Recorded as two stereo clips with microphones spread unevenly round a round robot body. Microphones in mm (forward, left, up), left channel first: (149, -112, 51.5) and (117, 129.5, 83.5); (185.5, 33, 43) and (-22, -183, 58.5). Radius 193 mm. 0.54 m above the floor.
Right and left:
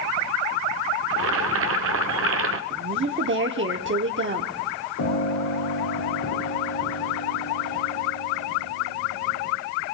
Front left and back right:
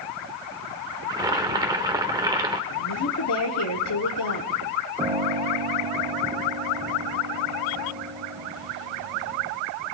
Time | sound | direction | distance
1.1 | boiling | 145° left | 0.6 m
2.7 | a woman speaking | 60° left | 1.4 m
5.0 | a piano | 60° right | 5.5 m